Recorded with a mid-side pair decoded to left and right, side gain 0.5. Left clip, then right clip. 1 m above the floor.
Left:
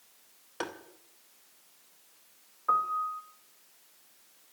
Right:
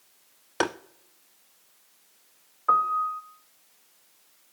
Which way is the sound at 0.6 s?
60° right.